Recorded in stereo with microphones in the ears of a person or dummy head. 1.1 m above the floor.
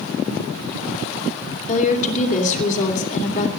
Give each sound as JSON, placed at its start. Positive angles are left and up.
{"t": 1.7, "sound": "a woman speaking", "side_deg": 40, "distance_m": 2.5}